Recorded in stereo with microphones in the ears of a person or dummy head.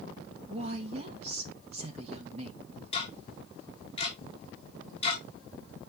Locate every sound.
0.5 s a woman speaking: 35° right (ahead or behind), 1.5 m
2.9 s ticking: 30° left (ahead or behind), 2.5 m